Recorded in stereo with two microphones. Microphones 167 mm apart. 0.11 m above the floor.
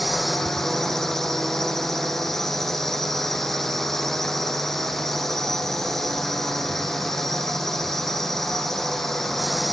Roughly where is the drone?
Centre.